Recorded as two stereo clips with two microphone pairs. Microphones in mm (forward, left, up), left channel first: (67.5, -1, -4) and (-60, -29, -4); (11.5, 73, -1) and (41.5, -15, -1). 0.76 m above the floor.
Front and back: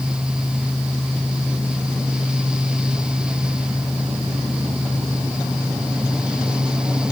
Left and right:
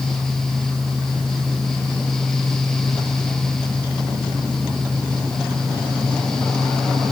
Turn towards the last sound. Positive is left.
No sound to turn to.